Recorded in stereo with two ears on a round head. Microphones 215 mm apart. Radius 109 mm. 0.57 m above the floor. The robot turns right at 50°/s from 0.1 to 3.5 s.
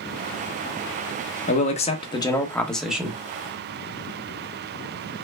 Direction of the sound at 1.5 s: 110° left.